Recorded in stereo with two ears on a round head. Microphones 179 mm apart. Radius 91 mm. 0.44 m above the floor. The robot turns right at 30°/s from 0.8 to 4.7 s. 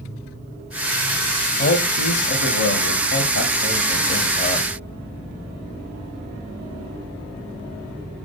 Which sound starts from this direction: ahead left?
A man speaking, at 1.6 s.